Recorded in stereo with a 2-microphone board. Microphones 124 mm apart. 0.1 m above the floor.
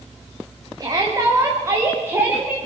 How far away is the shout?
About 7.5 m.